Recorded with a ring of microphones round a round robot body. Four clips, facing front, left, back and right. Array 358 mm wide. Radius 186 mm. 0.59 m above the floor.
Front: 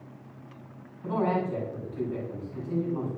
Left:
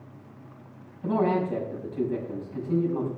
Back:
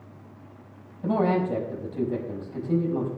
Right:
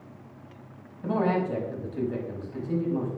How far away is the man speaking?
About 5.5 m.